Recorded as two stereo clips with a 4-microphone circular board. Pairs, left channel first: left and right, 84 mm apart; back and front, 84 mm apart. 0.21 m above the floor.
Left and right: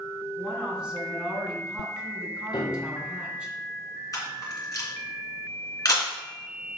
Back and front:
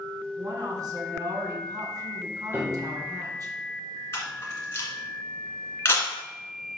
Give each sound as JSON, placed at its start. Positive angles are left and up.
{"t": 0.4, "sound": "a woman speaking", "azimuth_deg": -15, "distance_m": 2.0}
{"t": 2.5, "sound": "a piano", "azimuth_deg": 65, "distance_m": 2.0}
{"t": 4.1, "sound": "a camera shutter", "azimuth_deg": 125, "distance_m": 2.5}